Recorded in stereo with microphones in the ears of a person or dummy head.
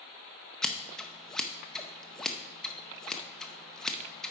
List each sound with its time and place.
0.6 s scissors: 5° left (ahead or behind), 0.5 m